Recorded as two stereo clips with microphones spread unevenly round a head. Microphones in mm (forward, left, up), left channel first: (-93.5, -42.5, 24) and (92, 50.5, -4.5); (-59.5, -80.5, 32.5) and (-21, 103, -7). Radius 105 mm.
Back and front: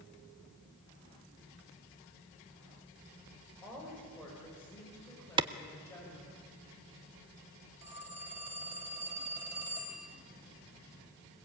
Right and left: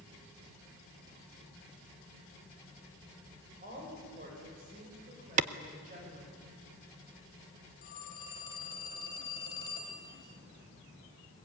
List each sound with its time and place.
3.6 s a woman speaking: 120° left, 5 m; by 6.4 s 125° left, 6.5 m
5.4 s a clap: 80° left, 0.6 m
7.8 s a phone ringing: 55° right, 3 m